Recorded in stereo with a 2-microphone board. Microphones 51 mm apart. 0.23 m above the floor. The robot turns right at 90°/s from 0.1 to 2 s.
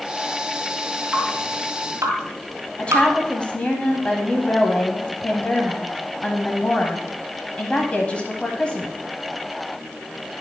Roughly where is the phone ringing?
No phone ringing in this recording.